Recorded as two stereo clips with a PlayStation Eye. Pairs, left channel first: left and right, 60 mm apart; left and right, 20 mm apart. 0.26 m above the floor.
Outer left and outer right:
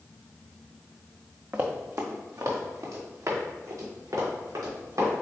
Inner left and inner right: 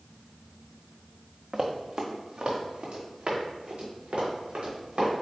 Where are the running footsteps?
40° right (ahead or behind), 0.9 m; by 5.2 s 75° right (ahead or behind), 4 m.